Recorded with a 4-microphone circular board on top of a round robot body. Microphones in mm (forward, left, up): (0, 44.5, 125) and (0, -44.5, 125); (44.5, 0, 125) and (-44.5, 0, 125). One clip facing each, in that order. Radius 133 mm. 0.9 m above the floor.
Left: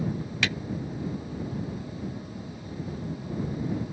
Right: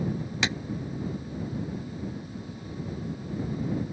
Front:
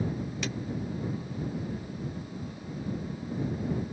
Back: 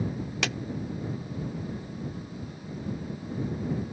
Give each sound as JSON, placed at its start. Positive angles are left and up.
{"t": 0.4, "sound": "a clap", "azimuth_deg": -160}